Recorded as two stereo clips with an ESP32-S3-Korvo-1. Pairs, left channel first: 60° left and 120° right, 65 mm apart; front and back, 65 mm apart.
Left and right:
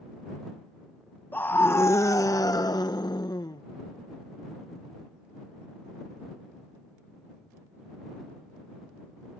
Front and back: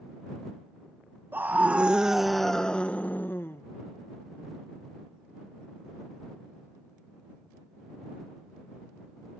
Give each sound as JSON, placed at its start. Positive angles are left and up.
{"t": 1.3, "sound": "a scream", "azimuth_deg": 120}